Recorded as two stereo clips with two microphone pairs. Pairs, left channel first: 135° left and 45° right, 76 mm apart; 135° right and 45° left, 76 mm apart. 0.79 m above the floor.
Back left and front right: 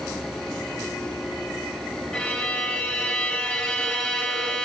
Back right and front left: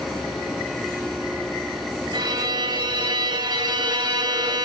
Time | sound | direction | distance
2.1 | a violin | 50° left | 1.8 m